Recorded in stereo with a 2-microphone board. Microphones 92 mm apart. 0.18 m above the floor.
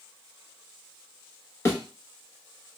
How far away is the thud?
About 1.3 m.